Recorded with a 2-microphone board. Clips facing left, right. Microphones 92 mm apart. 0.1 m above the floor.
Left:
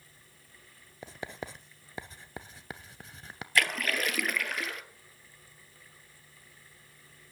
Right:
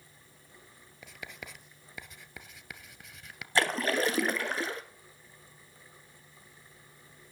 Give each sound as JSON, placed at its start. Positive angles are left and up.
{"t": 1.0, "sound": "writing", "side_deg": 35, "distance_m": 0.6}
{"t": 3.5, "sound": "a splash", "side_deg": -30, "distance_m": 0.8}